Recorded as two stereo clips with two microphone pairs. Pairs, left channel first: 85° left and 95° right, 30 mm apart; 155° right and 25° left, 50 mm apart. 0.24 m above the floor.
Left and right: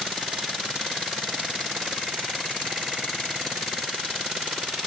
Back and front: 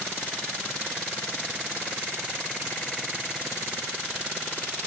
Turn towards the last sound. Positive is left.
No sound to turn to.